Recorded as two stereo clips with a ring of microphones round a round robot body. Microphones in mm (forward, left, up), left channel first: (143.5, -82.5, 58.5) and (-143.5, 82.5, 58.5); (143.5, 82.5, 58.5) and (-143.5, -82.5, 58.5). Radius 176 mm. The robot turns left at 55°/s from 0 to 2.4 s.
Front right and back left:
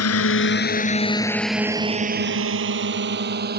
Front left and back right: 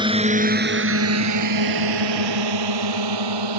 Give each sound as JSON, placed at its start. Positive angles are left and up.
{"t": 0.0, "sound": "a drone", "azimuth_deg": -75}